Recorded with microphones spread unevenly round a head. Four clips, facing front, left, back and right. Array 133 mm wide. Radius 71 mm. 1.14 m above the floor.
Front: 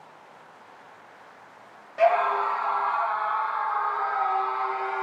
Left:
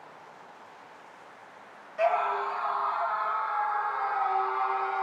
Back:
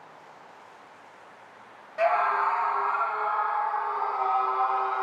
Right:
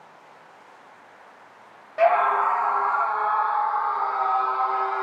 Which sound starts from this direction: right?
A scream, at 2.0 s.